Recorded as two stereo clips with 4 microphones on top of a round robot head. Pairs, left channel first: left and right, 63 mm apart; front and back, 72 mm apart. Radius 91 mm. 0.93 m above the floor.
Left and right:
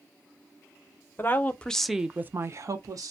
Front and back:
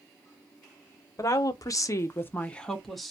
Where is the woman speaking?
35° left, 0.8 m; by 3.1 s 90° right, 0.8 m.